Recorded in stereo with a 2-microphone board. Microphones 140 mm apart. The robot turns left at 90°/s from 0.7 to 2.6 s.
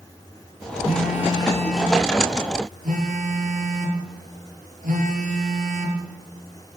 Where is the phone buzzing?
85° left, 7.5 m; by 6.0 s 75° right, 7.5 m.